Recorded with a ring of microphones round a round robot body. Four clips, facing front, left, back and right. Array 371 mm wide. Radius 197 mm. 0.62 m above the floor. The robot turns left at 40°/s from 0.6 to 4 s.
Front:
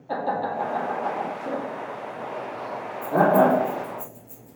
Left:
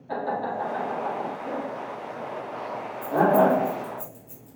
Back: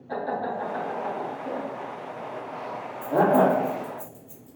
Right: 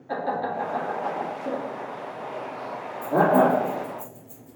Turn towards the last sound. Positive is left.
turn(degrees=135)